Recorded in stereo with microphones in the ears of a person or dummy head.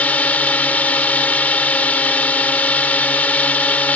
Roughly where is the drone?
Centre.